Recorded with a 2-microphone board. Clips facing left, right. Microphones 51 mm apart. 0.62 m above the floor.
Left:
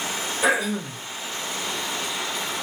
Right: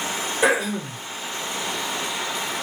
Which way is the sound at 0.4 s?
70° right (ahead or behind).